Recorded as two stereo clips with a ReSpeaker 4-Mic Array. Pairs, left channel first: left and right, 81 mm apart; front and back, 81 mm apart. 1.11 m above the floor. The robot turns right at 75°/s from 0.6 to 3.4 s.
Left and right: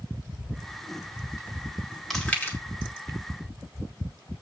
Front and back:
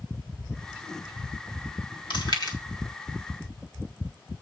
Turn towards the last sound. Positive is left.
turn(degrees=100)